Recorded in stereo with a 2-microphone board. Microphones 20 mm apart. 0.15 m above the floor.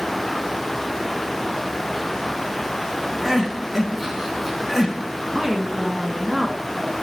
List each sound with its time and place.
3.2 s crying: 15° right (ahead or behind), 1.2 m
5.3 s a woman speaking: 20° right (ahead or behind), 1.6 m